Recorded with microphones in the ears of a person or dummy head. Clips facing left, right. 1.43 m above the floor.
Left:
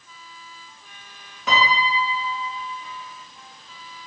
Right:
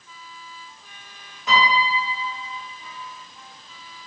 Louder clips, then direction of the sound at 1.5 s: Right 1 dB; 55° left (ahead or behind).